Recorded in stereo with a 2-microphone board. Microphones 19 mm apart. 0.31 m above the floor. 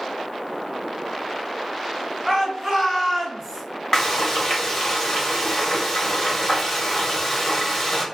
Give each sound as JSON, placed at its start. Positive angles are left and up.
{"t": 2.2, "sound": "a shout", "side_deg": -30, "distance_m": 1.8}
{"t": 3.9, "sound": "frying", "side_deg": 15, "distance_m": 0.8}